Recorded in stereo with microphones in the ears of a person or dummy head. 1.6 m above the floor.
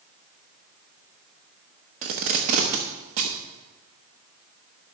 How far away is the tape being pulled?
About 1.0 m.